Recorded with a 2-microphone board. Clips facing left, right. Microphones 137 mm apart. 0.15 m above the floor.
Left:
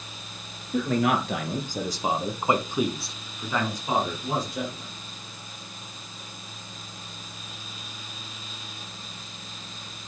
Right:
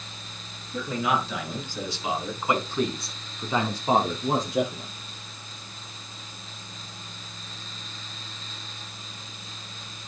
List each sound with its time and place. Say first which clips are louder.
0.7 s a man speaking: left 3 dB; 60° left (ahead or behind), 2.5 m; by 4.9 s 55° right (ahead or behind), 2 m